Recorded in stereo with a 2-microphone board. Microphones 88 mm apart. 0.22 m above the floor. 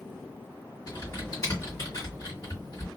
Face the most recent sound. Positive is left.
turn(degrees=45)  # may be behind; listen again after turning